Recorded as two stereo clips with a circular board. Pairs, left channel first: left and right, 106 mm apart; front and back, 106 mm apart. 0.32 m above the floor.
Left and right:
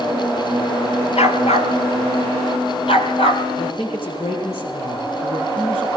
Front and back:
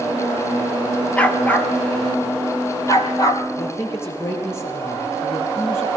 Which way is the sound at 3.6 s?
65° left.